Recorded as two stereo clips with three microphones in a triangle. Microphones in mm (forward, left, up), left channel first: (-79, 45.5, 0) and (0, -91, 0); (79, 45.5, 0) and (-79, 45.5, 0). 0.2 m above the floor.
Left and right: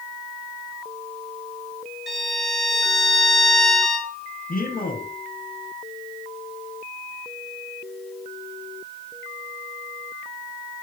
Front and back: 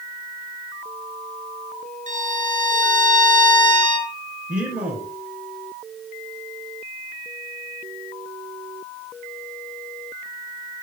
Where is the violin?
150° right, 3 m.